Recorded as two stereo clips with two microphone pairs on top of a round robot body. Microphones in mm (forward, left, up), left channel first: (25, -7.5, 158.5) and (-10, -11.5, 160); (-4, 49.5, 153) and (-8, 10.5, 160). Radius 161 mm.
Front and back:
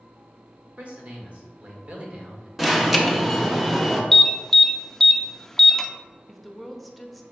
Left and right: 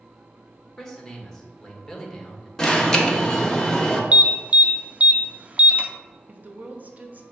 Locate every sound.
0.8 s a man speaking: 155° left, 1.3 m
2.6 s an alarm: 105° left, 1.0 m
4.1 s an alarm: 55° right, 0.6 m
6.3 s a woman speaking: 75° right, 0.9 m